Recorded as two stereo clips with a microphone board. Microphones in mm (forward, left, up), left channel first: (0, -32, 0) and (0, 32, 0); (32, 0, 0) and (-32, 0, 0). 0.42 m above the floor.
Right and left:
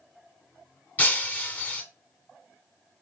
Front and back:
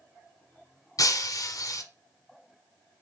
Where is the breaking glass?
25° right, 0.6 m.